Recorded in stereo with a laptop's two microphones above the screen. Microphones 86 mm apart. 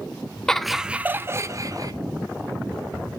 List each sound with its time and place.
0.5 s laughter: 10° left (ahead or behind), 0.5 m; by 1.9 s 45° right (ahead or behind), 0.7 m